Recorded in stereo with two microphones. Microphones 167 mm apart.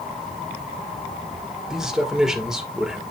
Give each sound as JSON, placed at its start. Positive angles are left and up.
{"t": 1.7, "sound": "a man speaking", "side_deg": -5, "distance_m": 1.8}